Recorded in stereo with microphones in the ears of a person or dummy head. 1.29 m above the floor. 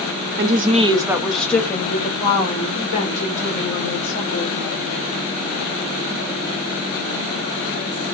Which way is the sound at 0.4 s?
45° right (ahead or behind).